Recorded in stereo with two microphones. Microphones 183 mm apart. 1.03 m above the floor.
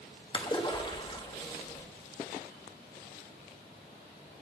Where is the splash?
25° left (ahead or behind), 1.2 m.